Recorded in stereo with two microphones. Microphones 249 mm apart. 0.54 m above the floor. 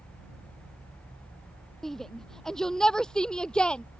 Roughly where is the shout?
Centre.